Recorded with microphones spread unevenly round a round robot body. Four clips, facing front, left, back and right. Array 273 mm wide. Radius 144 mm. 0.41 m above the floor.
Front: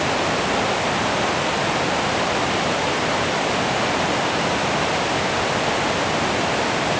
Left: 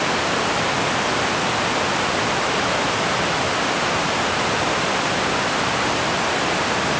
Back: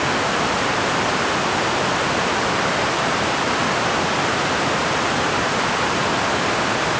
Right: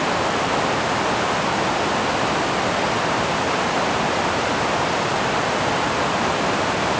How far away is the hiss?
No hiss in this recording.